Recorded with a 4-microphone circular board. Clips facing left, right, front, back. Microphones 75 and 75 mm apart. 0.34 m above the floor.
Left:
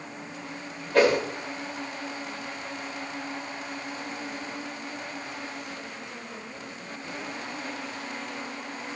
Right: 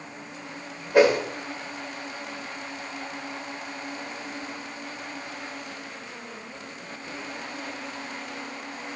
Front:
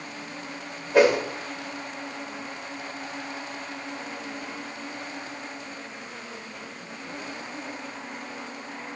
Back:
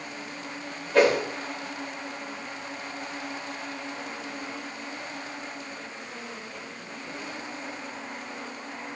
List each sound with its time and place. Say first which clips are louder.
0.9 s a whoosh: right 2 dB, front 2 dB; 50° right, 0.6 m